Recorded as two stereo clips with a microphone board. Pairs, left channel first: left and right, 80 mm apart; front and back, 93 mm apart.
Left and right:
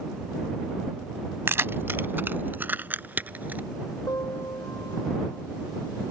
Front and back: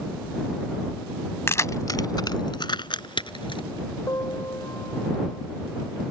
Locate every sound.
1.5 s keys jangling: 45° right; by 3.6 s 20° right
4.1 s a piano: 50° left